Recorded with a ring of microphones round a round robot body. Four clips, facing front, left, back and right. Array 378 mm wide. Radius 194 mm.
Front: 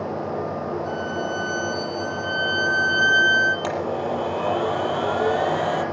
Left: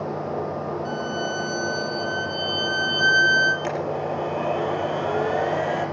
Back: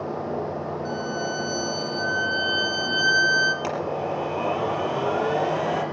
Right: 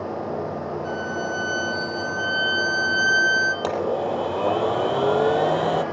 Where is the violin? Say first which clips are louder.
Even, front 2 dB; 165° right, 2.5 m.